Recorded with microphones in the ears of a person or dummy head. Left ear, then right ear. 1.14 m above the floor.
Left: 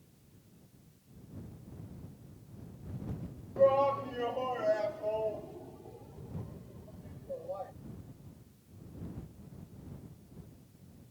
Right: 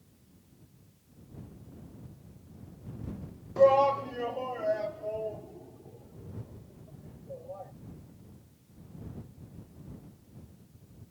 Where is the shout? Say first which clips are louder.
Right 4 dB; 30° right (ahead or behind); by 7.7 s 30° left (ahead or behind).